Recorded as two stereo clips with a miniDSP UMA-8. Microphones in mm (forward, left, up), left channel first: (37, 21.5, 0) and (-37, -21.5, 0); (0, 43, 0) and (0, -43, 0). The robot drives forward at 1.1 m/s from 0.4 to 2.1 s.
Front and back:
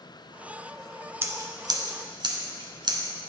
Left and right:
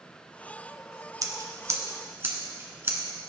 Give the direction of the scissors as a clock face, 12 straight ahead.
3 o'clock.